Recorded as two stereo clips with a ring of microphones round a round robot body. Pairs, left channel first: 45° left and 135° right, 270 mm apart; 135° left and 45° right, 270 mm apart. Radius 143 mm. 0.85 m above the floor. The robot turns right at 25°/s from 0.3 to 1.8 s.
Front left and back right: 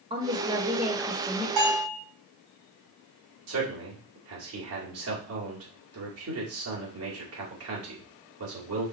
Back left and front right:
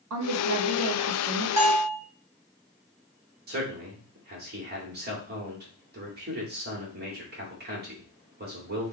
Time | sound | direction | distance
0.1 | a woman speaking | 65° right | 1.1 m
1.6 | a bell | 125° right | 3 m
3.5 | a man speaking | 100° right | 2.0 m